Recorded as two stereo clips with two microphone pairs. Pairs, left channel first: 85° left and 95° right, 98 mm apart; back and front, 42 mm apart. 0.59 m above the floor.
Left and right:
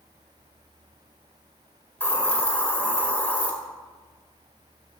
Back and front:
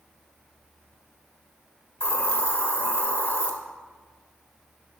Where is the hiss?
155° left, 1.7 m.